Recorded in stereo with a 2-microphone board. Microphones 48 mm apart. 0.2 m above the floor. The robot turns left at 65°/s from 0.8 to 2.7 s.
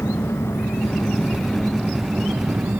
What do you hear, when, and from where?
0.0 s an engine running: 75° left; by 2.8 s 50° right